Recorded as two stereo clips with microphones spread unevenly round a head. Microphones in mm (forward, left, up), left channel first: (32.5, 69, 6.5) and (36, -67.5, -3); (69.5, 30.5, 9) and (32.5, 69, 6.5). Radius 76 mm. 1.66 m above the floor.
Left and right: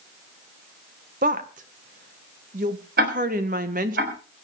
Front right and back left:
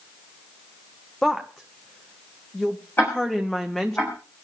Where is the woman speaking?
135° right, 1.5 m.